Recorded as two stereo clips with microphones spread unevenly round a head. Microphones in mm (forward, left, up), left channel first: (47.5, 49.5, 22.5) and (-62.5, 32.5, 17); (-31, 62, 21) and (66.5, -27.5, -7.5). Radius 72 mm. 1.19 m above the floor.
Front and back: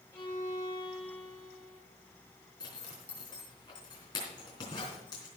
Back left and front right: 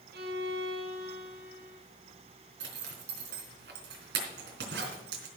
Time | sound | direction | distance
0.1 | a violin | 65° right | 4 m
2.6 | a zipper | 55° right | 3.5 m